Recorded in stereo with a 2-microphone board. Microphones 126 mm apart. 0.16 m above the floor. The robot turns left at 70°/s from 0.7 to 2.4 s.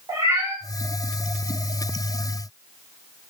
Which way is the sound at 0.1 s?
25° right (ahead or behind).